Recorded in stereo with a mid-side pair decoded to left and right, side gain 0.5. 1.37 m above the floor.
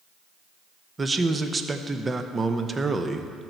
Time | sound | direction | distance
1.0 | a man speaking | 25° right | 0.7 m